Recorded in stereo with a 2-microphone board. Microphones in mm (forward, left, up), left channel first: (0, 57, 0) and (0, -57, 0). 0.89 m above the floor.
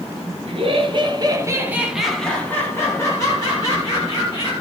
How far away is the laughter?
About 1.2 m.